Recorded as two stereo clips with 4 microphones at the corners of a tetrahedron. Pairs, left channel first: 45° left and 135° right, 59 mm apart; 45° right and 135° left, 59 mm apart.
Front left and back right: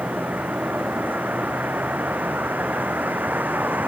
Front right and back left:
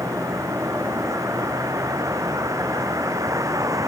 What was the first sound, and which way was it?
A vehicle, 165° left.